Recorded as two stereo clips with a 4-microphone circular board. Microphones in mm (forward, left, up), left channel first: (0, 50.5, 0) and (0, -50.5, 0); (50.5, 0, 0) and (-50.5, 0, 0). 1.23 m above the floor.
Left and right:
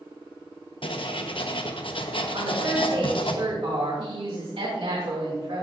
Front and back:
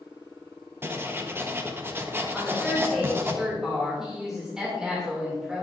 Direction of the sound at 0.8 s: 115° left.